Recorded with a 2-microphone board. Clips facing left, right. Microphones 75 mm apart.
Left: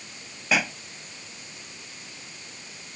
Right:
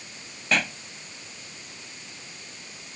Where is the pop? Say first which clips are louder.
Left 1 dB; 5° left (ahead or behind).